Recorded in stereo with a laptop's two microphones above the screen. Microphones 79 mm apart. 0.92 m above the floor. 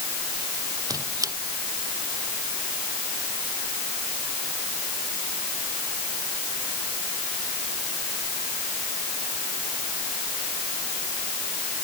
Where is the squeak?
50° right (ahead or behind).